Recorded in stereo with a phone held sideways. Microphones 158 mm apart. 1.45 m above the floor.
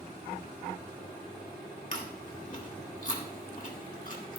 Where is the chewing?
50° left (ahead or behind), 2 m.